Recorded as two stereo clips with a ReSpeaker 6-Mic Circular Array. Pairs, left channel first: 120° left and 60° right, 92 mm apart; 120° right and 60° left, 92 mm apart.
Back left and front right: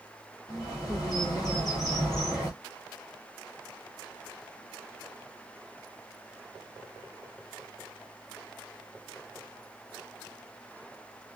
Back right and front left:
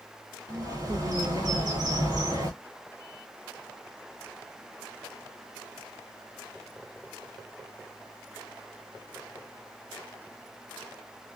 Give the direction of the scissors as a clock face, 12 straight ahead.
No scissors in this recording.